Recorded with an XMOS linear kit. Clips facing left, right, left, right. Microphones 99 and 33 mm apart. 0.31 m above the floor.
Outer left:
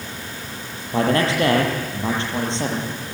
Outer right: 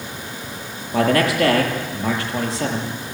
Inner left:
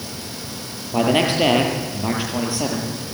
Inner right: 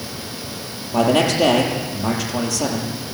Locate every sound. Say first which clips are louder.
0.9 s a man speaking: outer right 1 dB, inner right 1 dB; 25° left (ahead or behind), 6.5 m